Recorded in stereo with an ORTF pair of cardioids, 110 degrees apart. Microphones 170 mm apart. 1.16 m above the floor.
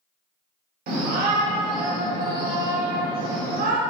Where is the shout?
65° right, 1.6 m.